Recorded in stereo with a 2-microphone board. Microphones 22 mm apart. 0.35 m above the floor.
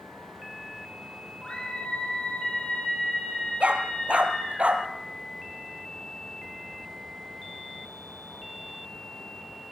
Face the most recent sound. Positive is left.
turn(degrees=-75)  # may be behind; listen again after turning